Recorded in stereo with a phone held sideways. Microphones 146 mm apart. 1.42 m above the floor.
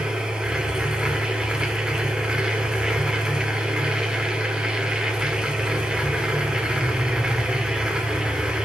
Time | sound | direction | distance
0.0 | a machine running | 5° right (ahead or behind) | 1.6 m